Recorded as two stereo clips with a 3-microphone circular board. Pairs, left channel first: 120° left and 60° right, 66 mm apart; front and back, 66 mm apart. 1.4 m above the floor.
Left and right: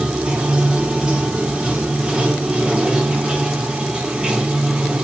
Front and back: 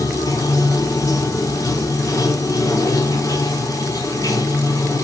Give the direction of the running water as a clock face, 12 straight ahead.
12 o'clock.